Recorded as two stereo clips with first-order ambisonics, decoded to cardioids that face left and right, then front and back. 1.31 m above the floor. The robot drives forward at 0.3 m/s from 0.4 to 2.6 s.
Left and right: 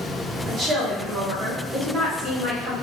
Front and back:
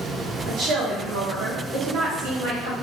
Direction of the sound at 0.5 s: 150° right.